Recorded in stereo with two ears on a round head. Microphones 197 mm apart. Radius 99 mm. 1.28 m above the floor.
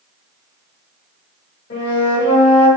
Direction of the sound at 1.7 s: 50° left (ahead or behind).